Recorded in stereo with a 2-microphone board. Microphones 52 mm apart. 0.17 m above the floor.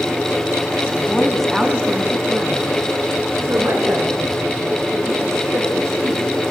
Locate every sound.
0.9 s a woman speaking: 15° left (ahead or behind), 1.9 m; by 6.3 s 70° right (ahead or behind), 6 m